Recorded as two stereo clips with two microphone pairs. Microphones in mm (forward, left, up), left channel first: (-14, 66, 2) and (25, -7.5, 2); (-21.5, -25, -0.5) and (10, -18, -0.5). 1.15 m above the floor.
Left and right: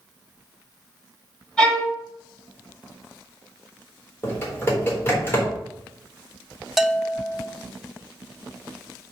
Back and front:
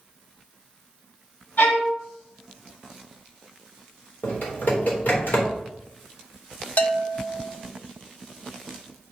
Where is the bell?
150° right, 0.7 m.